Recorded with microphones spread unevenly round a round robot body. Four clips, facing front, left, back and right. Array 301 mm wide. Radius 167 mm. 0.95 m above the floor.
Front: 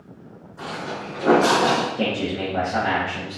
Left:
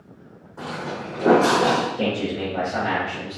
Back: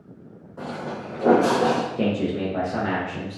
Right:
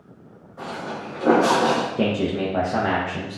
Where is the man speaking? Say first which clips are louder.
Right 2 dB, back 1 dB; 70° right, 1.0 m.